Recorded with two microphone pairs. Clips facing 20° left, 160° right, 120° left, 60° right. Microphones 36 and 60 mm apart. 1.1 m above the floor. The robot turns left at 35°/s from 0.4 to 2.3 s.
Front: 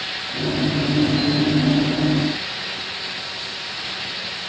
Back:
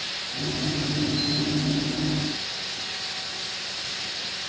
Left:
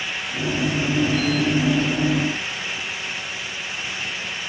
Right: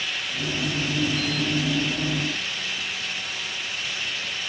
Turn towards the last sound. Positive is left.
No sound to turn to.